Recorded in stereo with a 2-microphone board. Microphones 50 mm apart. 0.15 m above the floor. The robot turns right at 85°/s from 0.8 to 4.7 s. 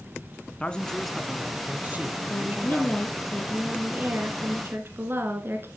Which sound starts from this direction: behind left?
A man speaking, at 0.6 s.